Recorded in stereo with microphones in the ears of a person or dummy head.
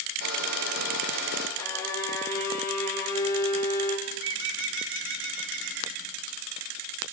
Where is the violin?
15° left (ahead or behind), 3 m.